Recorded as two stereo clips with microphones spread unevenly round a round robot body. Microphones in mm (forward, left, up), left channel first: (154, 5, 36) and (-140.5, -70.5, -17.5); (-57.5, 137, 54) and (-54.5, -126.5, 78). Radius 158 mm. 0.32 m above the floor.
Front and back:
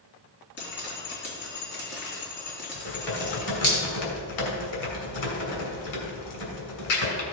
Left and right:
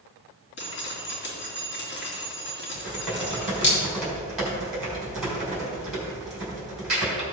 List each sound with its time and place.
0.6 s dripping: 65° left, 3.5 m
2.7 s typing on a keyboard: straight ahead, 3 m